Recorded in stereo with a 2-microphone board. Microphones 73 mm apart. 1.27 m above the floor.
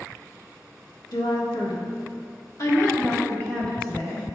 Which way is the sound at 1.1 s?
75° left (ahead or behind).